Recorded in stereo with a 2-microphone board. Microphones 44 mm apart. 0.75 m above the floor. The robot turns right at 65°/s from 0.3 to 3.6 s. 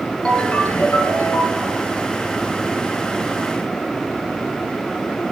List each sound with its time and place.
0.2 s a ringtone: 20° left, 3.5 m; by 1.8 s 115° left, 3.5 m